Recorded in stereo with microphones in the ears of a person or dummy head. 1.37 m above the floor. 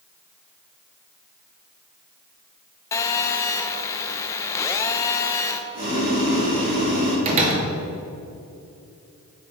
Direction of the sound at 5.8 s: 40° right (ahead or behind).